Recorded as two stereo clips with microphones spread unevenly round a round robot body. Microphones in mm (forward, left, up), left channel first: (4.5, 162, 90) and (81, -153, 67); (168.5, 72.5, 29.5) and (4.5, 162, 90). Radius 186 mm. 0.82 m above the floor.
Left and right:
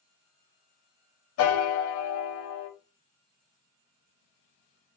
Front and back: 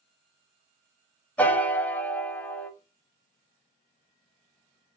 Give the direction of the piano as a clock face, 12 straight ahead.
10 o'clock.